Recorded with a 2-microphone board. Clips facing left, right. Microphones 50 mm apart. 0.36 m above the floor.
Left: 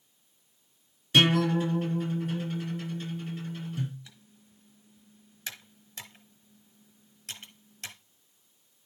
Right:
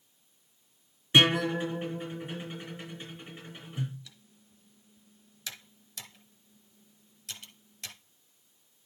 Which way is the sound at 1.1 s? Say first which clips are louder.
Left 1 dB; 20° right (ahead or behind).